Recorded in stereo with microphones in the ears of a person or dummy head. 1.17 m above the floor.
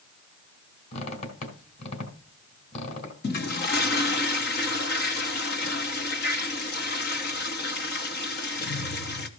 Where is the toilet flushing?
45° left (ahead or behind), 1.0 m.